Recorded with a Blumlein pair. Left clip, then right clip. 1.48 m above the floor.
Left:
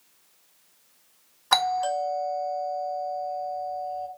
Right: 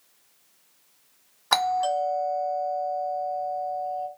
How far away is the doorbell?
About 1.4 m.